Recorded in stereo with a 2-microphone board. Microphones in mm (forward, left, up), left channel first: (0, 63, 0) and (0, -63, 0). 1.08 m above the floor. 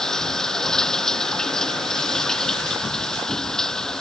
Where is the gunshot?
I don't hear a gunshot.